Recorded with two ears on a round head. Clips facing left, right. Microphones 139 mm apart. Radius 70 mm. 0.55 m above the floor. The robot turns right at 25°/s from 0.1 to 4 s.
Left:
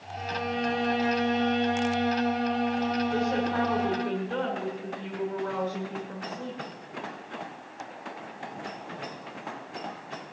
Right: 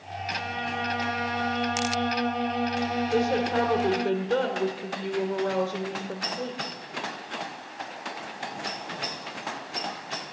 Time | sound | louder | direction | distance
0.2 | a violin | left 3 dB | 120° left | 2 m
3.1 | a woman speaking | right 3 dB | 35° right (ahead or behind) | 1.9 m